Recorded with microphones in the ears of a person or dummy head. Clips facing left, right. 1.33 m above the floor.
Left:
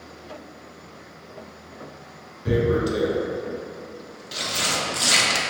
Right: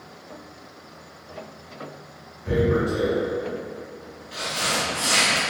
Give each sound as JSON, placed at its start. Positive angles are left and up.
{"t": 2.5, "sound": "tearing paper", "side_deg": 50, "distance_m": 0.6}